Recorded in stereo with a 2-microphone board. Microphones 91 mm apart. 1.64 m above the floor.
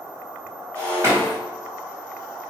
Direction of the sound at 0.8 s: 35° right (ahead or behind).